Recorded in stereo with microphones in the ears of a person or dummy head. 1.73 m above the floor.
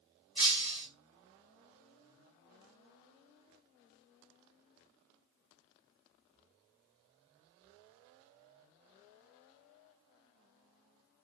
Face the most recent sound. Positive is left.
turn(degrees=30)  # may be behind; listen again after turning